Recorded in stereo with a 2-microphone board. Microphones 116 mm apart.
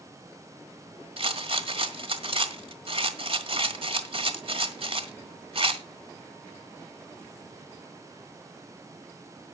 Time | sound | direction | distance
1.2 | a rattle | 55° right (ahead or behind) | 1.5 m